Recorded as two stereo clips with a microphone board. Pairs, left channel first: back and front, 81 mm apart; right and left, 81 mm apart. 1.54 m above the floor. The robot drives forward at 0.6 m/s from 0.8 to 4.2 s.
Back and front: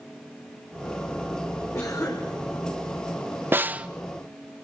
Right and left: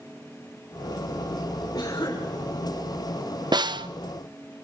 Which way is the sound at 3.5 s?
65° left.